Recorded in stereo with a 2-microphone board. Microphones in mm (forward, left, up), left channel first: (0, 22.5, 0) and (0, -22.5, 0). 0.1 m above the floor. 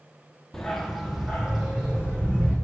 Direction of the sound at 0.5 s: 5° left (ahead or behind).